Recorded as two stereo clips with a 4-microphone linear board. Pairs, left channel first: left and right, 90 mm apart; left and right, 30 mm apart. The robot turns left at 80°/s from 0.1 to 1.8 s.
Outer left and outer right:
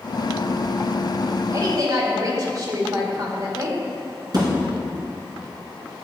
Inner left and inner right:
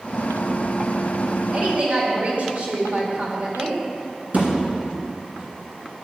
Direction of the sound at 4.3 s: 50° right (ahead or behind).